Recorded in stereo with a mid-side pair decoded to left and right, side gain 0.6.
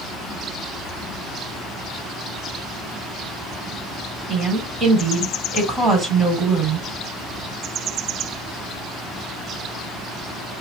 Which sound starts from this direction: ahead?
A woman speaking, at 4.3 s.